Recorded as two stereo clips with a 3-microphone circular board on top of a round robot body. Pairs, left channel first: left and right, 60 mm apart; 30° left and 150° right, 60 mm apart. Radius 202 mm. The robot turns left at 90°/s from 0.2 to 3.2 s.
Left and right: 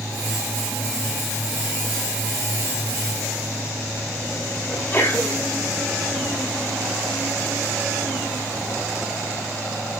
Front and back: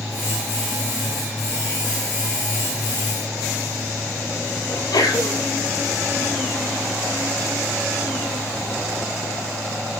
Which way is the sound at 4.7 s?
30° left.